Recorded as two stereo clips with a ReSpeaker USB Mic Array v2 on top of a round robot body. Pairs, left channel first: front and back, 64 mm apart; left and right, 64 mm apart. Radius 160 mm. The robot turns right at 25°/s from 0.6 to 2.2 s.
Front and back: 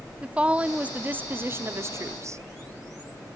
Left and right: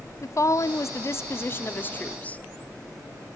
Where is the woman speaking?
115° left, 1.2 m; by 2.4 s 155° left, 1.2 m.